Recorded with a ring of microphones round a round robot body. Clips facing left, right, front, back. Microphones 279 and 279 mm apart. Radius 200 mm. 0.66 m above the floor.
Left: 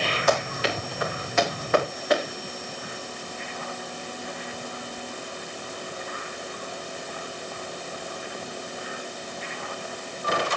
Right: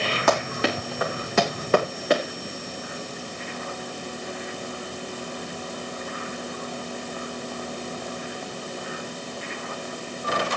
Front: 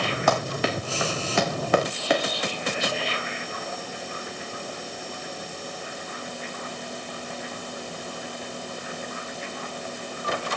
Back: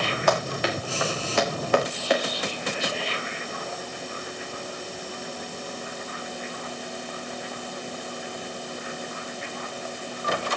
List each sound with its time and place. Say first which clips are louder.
0.3 s running footsteps: right 2 dB, even; 35° right, 3 m; by 2.2 s 15° right, 2.5 m